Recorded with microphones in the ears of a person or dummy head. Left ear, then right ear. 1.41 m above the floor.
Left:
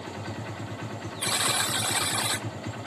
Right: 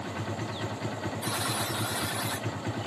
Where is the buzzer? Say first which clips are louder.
Left 7 dB; 45° left (ahead or behind), 0.6 m.